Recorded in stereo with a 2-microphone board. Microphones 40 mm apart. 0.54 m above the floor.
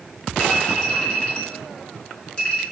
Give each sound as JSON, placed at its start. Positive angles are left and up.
{"t": 0.4, "sound": "a clink", "side_deg": 25, "distance_m": 2.0}